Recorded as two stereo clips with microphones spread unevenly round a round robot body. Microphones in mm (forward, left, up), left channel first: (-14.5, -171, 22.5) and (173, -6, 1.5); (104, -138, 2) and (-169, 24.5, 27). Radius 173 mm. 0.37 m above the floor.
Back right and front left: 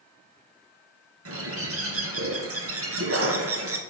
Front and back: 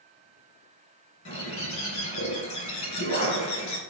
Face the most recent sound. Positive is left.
turn(degrees=15)